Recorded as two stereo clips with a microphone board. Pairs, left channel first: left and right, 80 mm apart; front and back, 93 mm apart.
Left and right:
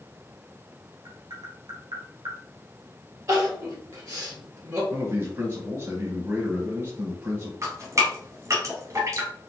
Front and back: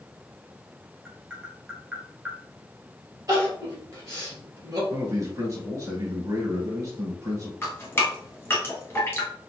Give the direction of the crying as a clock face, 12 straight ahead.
4 o'clock.